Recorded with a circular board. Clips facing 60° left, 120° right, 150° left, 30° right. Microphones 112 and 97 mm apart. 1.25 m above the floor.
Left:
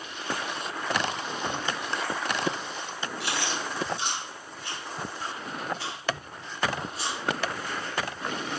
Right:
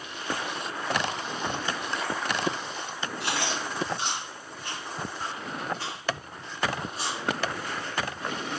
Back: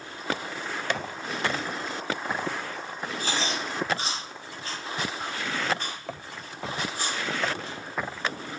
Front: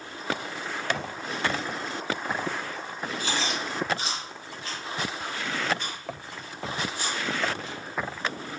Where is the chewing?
160° right, 0.8 m.